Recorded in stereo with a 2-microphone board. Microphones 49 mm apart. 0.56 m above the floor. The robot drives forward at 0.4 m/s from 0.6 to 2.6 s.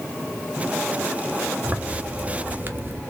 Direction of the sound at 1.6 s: 25° right (ahead or behind).